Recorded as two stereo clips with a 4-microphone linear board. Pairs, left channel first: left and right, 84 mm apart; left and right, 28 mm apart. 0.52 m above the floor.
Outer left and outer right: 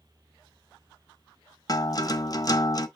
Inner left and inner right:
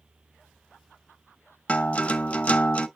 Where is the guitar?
45° left (ahead or behind), 0.8 m.